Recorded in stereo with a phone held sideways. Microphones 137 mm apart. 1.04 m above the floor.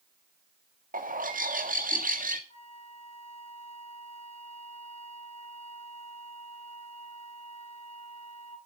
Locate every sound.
0.9 s a bird: 75° right (ahead or behind), 1.6 m
2.5 s a flute: 50° left (ahead or behind), 2.5 m